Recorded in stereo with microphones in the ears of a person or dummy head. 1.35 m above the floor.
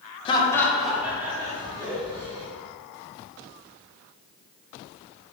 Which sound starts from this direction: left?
Laughter, at 0.2 s.